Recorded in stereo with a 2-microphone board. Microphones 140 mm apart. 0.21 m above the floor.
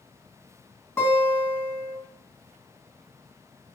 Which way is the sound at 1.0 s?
20° left (ahead or behind).